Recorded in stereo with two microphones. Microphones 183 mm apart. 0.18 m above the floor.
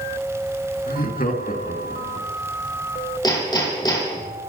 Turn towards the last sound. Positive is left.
turn(degrees=25)  # may be behind; listen again after turning